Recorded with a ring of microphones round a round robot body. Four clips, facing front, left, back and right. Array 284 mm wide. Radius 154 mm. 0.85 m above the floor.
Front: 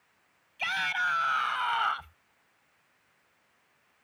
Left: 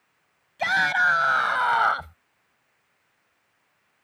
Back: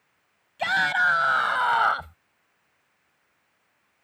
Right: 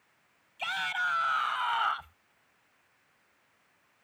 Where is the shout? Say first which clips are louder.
Left 11 dB, back 8 dB; 130° left; by 2.2 s 135° left.